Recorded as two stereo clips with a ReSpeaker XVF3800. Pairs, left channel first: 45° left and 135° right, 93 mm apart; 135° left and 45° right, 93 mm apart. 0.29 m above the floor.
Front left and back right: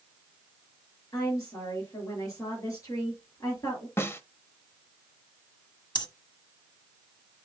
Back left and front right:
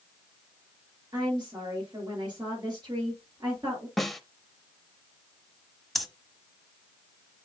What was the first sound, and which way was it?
A woman speaking, 5° right.